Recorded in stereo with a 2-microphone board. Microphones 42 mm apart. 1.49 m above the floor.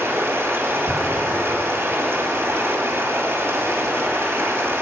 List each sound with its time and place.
0.0 s running water: 85° right, 2.5 m